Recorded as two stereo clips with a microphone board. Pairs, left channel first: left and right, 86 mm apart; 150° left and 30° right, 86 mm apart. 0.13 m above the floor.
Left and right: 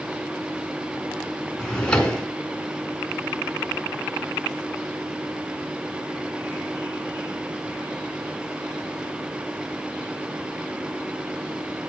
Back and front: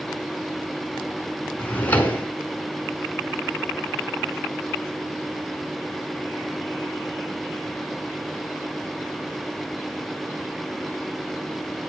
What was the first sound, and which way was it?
A drawer, 145° left.